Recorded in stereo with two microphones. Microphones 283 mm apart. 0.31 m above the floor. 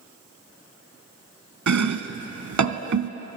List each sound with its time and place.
1.7 s chopping: 85° right, 0.5 m